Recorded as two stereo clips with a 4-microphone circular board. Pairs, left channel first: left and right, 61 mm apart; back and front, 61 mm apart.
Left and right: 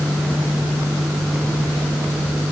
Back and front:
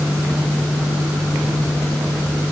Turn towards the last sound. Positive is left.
No sound to turn to.